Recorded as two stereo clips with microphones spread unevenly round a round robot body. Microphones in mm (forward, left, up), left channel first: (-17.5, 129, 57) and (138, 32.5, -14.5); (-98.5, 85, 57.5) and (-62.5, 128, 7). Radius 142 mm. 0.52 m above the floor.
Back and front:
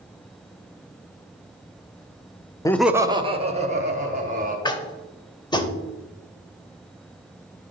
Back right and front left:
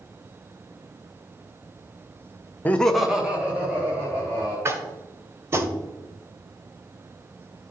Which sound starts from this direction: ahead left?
Laughter, at 2.6 s.